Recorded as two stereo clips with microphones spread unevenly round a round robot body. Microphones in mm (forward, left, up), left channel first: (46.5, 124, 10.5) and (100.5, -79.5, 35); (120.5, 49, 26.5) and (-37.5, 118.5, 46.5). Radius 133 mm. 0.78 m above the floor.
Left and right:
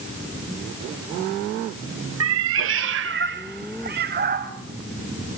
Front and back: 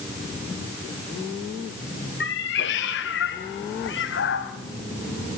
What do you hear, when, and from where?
2.2 s a cat meowing: 70° right, 1.3 m; by 4.5 s 35° right, 2.5 m